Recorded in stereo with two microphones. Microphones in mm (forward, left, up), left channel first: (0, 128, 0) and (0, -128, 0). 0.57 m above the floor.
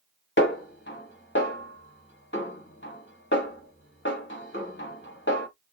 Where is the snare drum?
45° left (ahead or behind), 1.6 m.